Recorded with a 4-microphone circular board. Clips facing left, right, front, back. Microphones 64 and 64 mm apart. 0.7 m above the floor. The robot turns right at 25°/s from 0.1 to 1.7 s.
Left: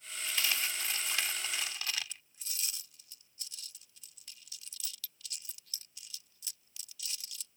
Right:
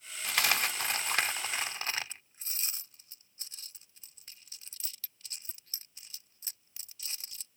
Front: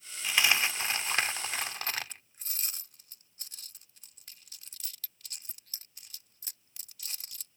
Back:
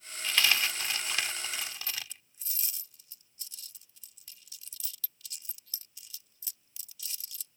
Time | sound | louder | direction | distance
0.2 | a dropped coin | right 5 dB, front 1 dB | 75° right | ?